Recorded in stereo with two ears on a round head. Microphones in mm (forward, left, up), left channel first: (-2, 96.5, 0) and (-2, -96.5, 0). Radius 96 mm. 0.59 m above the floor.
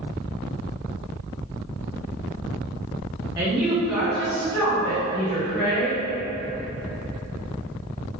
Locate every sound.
3.4 s a woman speaking: 15° right (ahead or behind), 1.2 m; by 6.0 s 35° left (ahead or behind), 1.8 m